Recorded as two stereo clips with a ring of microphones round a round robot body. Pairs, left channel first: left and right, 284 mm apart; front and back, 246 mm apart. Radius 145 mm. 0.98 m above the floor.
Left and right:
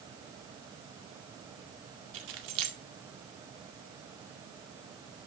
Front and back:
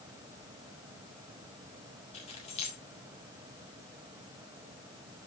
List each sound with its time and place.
2.1 s keys jangling: 70° right, 2 m